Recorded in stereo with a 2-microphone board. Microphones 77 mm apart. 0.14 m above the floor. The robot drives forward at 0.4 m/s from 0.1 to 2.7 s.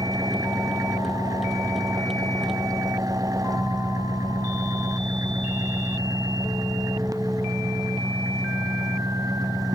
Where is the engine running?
50° right (ahead or behind).